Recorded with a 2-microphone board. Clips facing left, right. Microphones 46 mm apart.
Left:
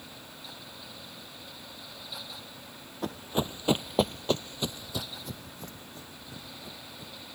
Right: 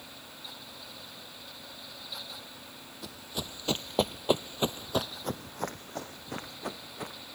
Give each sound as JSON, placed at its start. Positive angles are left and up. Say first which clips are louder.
{"t": 3.0, "sound": "running footsteps", "louder": "left 9 dB", "side_deg": 45}